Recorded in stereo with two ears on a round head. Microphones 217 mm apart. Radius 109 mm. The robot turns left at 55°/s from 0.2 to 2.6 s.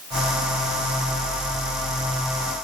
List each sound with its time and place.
Only background noise.